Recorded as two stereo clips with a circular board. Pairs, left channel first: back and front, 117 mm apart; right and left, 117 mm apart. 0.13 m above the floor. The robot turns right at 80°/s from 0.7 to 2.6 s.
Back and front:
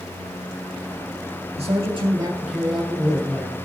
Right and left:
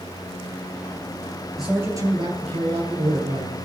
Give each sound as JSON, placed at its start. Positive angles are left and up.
{"t": 1.6, "sound": "a man speaking", "azimuth_deg": 5, "distance_m": 2.5}